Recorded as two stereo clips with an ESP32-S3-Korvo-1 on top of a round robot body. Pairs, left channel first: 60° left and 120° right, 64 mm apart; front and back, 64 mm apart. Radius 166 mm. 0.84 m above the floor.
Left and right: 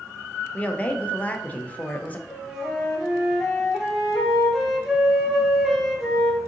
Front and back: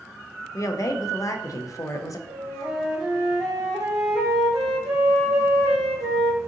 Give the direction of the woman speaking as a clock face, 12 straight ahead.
12 o'clock.